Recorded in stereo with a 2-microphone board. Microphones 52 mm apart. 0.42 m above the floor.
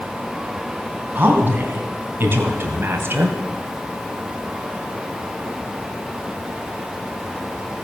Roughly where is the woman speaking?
Right.